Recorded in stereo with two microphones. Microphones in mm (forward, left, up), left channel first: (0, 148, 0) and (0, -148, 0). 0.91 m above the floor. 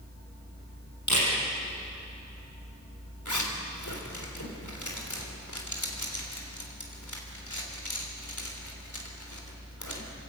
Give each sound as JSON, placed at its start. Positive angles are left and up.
{"t": 1.1, "sound": "a camera shutter", "side_deg": 75, "distance_m": 7.5}
{"t": 3.2, "sound": "a zipper", "side_deg": 80, "distance_m": 3.0}